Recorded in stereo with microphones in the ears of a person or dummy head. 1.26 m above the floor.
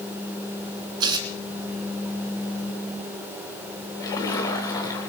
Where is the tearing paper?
30° right (ahead or behind), 3 m.